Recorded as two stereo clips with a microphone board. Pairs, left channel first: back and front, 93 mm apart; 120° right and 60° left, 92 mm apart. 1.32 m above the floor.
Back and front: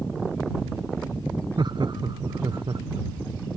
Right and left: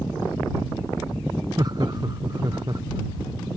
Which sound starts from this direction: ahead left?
Laughter, at 1.6 s.